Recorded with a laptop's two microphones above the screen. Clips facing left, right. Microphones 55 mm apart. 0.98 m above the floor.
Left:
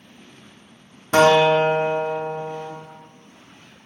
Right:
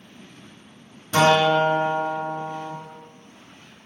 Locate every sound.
1.1 s a guitar: 55° left (ahead or behind), 0.7 m